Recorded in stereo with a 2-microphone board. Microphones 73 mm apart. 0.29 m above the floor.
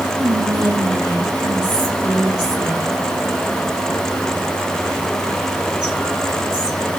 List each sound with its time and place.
0.2 s whispering: 75° right (ahead or behind), 4.5 m